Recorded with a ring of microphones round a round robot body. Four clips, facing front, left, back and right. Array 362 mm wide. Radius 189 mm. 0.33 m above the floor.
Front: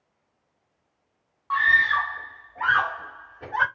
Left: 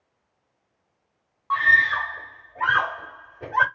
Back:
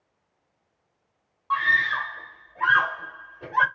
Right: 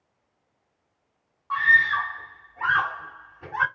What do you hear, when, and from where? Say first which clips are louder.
1.5 s a scream: left 1 dB, front 2 dB; 80° left, 1.7 m